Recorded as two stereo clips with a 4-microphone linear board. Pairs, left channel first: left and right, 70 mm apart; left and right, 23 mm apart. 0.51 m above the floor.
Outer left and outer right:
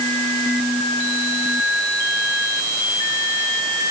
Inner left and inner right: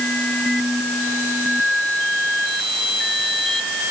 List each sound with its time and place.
Only background noise.